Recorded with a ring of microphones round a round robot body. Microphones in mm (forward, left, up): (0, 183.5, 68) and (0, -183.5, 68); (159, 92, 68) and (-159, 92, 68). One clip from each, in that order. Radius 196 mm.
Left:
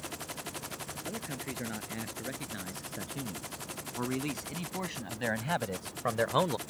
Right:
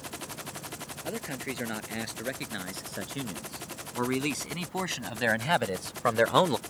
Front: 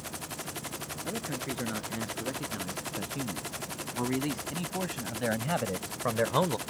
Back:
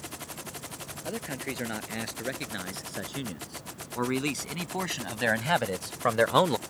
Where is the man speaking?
145° right.